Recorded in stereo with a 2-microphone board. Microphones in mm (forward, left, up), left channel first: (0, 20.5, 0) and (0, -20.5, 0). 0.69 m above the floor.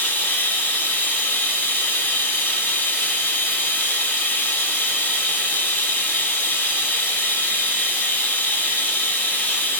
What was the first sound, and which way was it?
Running water, 45° left (ahead or behind).